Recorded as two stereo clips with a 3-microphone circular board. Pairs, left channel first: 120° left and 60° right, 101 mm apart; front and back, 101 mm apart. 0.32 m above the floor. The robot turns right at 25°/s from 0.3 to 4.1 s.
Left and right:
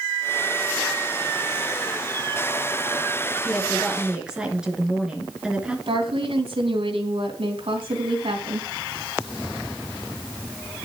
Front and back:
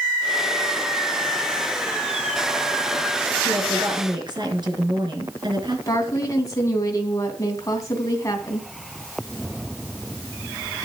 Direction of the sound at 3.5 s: 155° right.